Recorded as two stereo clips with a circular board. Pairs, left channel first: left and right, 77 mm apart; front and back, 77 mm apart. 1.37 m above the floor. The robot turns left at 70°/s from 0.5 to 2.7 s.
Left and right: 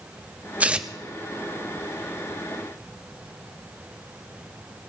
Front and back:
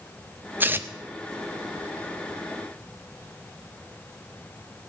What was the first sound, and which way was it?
Tearing paper, 140° right.